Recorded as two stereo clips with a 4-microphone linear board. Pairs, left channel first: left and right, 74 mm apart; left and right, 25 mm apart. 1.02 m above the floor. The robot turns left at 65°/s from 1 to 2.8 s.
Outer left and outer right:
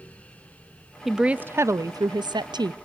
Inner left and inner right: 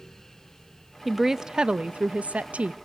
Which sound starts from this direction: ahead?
A woman speaking, at 1.1 s.